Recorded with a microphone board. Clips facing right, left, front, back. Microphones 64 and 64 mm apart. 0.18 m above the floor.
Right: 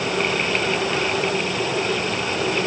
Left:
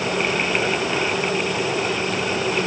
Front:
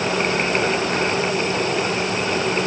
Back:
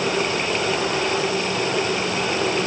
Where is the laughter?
I don't hear laughter.